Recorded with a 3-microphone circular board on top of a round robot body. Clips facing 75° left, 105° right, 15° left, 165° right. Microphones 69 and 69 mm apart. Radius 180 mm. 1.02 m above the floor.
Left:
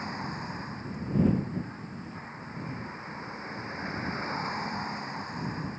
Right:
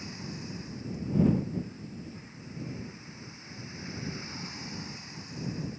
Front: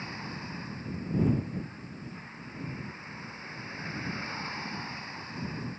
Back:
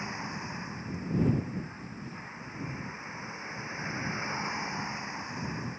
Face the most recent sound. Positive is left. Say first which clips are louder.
# left 6 dB, back 2 dB
turn(degrees=120)